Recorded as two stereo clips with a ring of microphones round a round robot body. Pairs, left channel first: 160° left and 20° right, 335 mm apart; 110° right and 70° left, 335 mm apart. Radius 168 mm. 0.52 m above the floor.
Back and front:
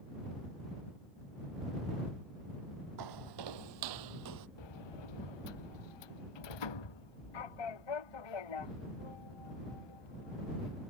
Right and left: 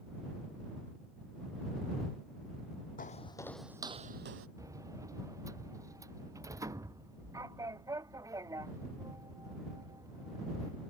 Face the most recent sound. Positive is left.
turn(degrees=150)